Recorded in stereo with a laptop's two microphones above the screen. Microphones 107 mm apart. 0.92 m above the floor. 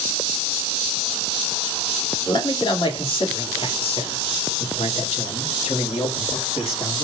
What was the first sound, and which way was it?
A man speaking, 45° left (ahead or behind).